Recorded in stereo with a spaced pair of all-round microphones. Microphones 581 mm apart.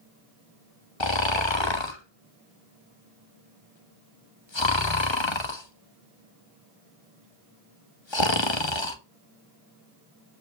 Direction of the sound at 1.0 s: 50° left (ahead or behind).